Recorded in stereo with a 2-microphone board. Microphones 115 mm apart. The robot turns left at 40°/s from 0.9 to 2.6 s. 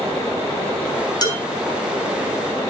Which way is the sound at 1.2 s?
35° left (ahead or behind).